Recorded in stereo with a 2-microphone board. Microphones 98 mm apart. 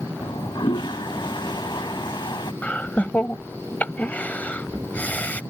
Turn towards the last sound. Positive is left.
turn(degrees=15)  # may be behind; listen again after turning